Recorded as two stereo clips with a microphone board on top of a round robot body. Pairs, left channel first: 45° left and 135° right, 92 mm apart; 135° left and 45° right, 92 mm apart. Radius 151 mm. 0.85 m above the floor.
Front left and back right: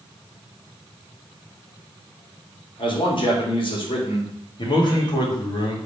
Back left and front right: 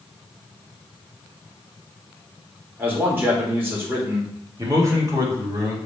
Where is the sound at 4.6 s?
10° left, 2 m.